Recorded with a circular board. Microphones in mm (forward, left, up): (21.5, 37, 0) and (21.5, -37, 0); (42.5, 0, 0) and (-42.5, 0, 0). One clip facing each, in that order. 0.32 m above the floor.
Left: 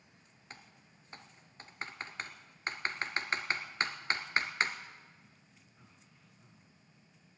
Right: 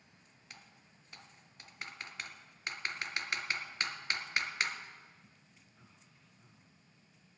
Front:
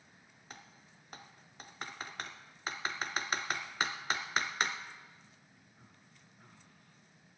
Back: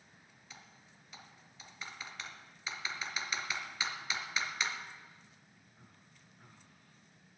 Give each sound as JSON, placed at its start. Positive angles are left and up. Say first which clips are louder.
{"t": 0.5, "sound": "typing on a keyboard", "louder": "left 3 dB, front 3 dB", "azimuth_deg": 35, "distance_m": 1.1}